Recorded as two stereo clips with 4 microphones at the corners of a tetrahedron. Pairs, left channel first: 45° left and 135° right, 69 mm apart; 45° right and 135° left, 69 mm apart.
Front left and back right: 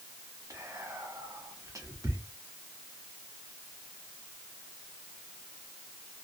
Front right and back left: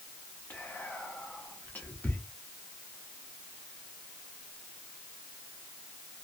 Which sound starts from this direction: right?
Whispering, at 0.5 s.